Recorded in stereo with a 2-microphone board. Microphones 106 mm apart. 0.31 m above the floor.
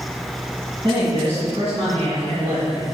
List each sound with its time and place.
0.8 s a man speaking: 50° right (ahead or behind), 2.5 m; by 2.9 s 70° right (ahead or behind), 3.5 m